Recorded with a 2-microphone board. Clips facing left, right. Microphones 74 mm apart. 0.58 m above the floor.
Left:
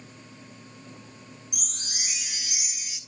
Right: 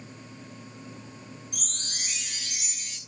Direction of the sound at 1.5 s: 10° left (ahead or behind).